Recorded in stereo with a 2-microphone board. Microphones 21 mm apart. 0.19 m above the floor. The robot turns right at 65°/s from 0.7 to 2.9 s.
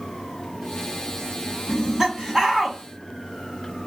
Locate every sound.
1.7 s laughter: 125° right, 1.1 m; by 2.8 s 50° right, 1.1 m